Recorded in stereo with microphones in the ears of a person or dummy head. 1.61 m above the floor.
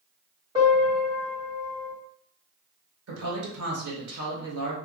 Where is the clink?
No clink in this recording.